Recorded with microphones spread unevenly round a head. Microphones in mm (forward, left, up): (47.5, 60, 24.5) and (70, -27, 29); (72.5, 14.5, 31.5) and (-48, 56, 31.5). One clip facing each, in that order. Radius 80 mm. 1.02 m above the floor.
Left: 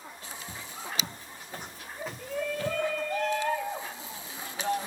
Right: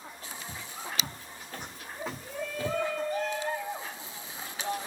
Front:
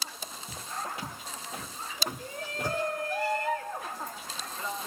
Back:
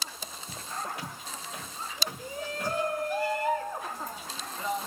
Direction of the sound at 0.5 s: 50° left.